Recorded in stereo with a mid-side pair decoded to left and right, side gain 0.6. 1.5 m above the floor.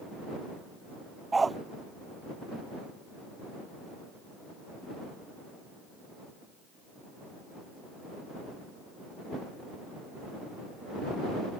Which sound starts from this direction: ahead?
A dog barking, at 1.3 s.